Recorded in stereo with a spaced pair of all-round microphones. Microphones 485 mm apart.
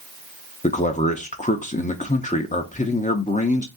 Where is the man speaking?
15° left (ahead or behind), 0.6 m.